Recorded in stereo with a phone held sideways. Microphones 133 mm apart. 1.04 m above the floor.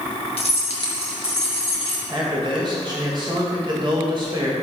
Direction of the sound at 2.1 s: 35° right (ahead or behind).